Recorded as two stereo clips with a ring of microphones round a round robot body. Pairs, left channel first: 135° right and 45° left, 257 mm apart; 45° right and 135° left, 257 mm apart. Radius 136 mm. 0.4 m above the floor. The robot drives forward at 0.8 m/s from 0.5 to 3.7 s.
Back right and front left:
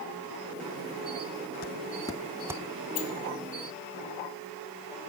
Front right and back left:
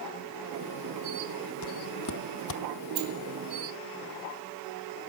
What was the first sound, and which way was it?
Footsteps, 80° right.